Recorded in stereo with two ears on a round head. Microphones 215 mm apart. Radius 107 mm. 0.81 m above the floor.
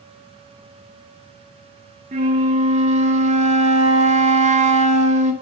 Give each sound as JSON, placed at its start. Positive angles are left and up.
{"t": 2.1, "sound": "a flute", "side_deg": -30, "distance_m": 0.7}